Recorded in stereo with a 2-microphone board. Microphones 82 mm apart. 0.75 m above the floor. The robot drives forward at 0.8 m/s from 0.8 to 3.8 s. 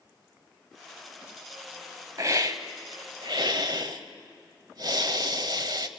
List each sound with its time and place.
2.2 s a hiss: 40° right (ahead or behind), 1.3 m; by 5.9 s 55° right (ahead or behind), 1.0 m